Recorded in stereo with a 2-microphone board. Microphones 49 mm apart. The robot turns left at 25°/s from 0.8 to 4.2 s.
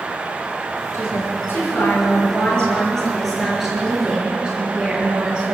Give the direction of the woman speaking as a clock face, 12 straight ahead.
10 o'clock.